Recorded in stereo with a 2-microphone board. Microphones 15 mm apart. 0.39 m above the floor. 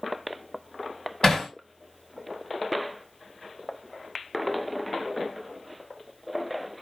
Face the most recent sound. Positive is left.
turn(degrees=60)  # may be behind; listen again after turning